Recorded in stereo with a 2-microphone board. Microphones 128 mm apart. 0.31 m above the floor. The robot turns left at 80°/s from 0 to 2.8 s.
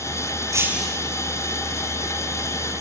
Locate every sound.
0.5 s breaking glass: 155° right, 2.5 m; by 1.0 s 170° left, 2.5 m